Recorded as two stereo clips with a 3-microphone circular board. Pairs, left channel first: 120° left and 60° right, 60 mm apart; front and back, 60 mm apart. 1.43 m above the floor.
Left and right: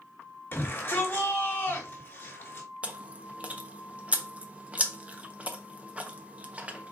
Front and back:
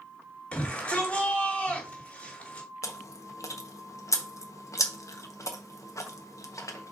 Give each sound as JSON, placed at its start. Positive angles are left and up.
{"t": 0.5, "sound": "a shout", "azimuth_deg": 70, "distance_m": 4.0}
{"t": 2.8, "sound": "chewing", "azimuth_deg": 5, "distance_m": 1.1}